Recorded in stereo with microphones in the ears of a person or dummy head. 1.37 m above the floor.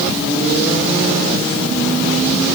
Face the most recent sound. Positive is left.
No sound to turn to.